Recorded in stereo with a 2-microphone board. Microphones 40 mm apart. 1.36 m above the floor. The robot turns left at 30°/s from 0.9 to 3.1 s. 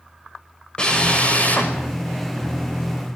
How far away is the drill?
About 5.5 m.